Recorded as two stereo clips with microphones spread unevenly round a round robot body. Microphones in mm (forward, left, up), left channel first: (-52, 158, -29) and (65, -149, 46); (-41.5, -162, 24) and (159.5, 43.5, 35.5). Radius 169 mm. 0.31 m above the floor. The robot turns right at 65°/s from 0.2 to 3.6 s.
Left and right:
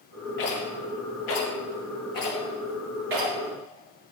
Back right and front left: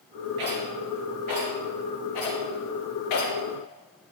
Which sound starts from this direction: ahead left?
A rattle, at 0.4 s.